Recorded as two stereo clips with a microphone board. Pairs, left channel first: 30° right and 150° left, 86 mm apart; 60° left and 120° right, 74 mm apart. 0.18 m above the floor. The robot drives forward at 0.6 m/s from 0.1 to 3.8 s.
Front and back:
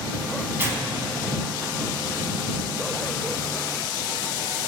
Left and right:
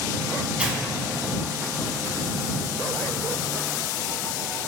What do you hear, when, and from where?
0.6 s tearing paper: straight behind, 0.7 m